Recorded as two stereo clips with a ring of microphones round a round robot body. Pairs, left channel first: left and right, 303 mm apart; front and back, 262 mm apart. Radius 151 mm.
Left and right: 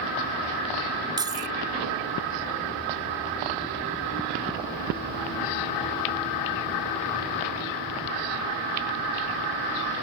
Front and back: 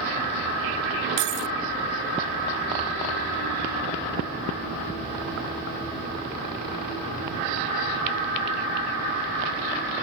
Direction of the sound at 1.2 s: 170° right.